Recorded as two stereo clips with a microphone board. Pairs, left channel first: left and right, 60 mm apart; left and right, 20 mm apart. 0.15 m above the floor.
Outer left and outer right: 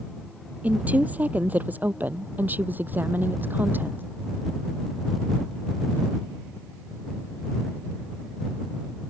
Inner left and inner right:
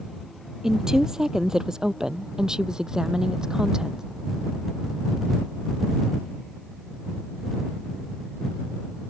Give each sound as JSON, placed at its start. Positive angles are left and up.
{"t": 0.6, "sound": "a woman speaking", "side_deg": -25}